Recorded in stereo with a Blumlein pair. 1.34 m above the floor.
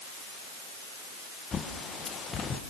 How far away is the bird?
About 1.3 m.